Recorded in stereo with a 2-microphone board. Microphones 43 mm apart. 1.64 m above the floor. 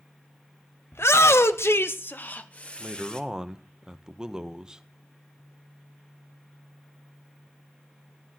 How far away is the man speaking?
About 0.8 m.